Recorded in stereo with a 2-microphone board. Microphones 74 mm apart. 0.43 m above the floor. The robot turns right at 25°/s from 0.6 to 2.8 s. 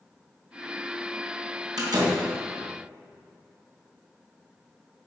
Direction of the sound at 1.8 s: 55° right (ahead or behind).